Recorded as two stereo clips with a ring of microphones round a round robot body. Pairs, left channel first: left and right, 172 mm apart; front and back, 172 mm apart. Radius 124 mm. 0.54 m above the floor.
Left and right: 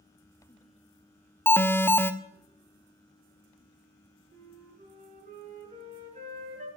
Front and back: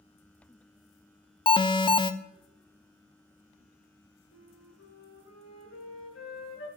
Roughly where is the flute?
Ahead right.